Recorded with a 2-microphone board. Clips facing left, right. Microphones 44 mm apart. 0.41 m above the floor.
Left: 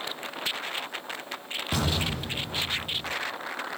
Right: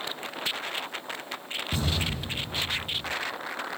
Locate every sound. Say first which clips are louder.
1.7 s an explosion: left 2 dB; 75° left (ahead or behind), 8 m